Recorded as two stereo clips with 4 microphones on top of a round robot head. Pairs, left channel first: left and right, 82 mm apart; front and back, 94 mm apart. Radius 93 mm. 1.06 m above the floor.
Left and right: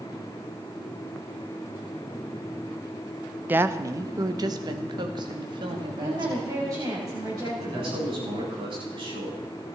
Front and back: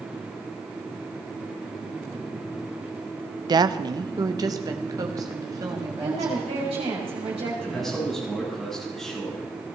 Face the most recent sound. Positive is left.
turn(degrees=-85)